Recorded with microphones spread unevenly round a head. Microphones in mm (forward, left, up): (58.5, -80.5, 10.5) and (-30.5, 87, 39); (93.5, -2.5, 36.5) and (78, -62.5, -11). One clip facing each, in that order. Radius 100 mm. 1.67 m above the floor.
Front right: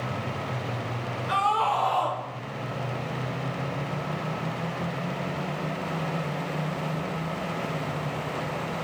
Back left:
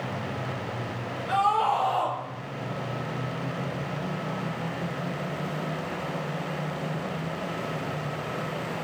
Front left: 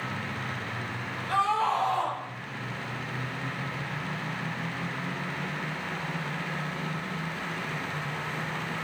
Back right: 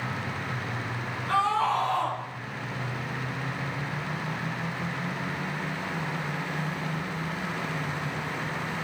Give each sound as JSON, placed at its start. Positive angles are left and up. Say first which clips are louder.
{"t": 1.3, "sound": "a scream", "louder": "back left 2 dB, back right 1 dB", "azimuth_deg": -150, "distance_m": 4.5}